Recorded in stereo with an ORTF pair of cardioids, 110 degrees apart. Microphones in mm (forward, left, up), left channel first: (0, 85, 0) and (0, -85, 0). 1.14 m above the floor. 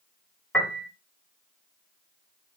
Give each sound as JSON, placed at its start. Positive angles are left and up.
{"t": 0.5, "sound": "a piano", "azimuth_deg": 10, "distance_m": 1.5}